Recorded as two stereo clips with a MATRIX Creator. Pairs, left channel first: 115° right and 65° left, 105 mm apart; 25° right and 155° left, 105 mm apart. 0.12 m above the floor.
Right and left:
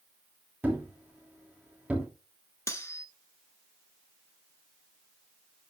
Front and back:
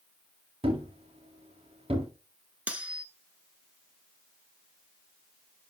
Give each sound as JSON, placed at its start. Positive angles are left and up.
{"t": 0.6, "sound": "a thud", "azimuth_deg": 145, "distance_m": 3.0}
{"t": 2.7, "sound": "cutlery clinking", "azimuth_deg": -140, "distance_m": 1.0}